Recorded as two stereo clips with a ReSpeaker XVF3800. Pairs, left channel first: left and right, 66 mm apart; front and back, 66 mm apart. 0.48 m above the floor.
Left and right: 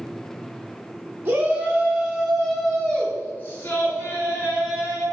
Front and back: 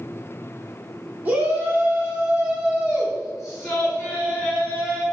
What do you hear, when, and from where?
1.2 s a shout: 130° right, 1.3 m; by 5.0 s 85° left, 1.7 m